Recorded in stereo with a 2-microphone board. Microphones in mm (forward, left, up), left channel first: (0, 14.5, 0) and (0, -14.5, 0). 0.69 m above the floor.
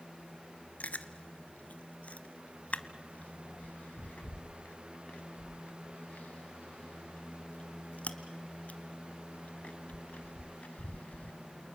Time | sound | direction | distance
0.8 | chewing | 55° left (ahead or behind) | 1.0 m